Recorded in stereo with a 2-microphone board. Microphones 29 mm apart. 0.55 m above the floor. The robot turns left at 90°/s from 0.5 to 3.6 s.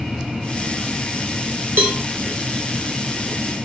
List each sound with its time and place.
1.8 s a cowbell: 75° right (ahead or behind), 0.6 m